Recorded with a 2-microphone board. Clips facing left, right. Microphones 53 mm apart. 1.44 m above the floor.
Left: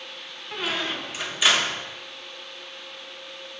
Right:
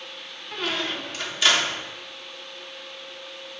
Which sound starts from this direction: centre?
A squeak, at 0.5 s.